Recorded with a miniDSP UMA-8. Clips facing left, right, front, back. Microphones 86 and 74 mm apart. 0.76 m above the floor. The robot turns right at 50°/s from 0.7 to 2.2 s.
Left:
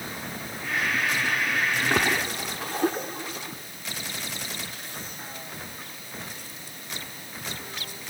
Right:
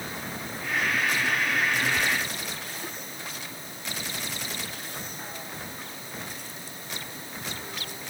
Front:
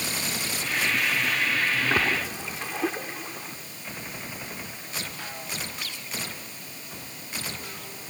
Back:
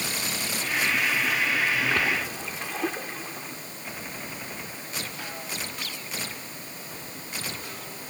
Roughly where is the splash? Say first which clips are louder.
Left 3 dB, front 1 dB; left.